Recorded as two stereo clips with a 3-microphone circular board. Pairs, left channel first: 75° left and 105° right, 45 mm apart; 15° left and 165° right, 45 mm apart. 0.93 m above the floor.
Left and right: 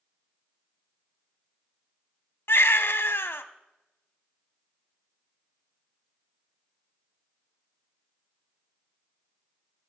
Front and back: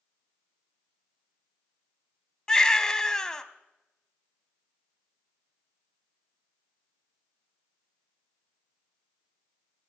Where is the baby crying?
90° left, 0.7 m.